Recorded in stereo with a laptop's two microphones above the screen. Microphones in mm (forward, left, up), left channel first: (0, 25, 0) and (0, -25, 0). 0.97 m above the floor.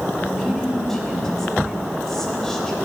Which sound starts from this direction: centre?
A woman speaking, at 0.2 s.